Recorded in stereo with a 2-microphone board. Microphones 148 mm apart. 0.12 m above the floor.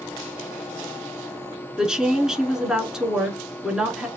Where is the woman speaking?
5° right (ahead or behind), 1.2 m.